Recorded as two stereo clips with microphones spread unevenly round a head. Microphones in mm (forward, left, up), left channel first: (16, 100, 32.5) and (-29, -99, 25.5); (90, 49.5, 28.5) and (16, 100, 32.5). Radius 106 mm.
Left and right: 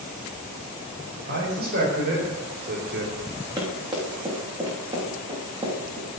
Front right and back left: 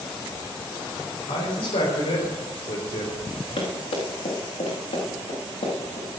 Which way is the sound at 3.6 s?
30° right.